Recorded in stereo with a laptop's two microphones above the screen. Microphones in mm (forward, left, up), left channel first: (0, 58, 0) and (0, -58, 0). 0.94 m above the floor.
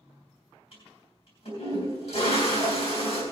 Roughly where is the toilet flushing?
Left.